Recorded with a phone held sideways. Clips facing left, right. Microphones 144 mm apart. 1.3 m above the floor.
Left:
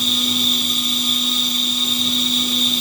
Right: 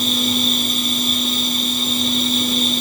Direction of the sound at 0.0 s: 55° right (ahead or behind).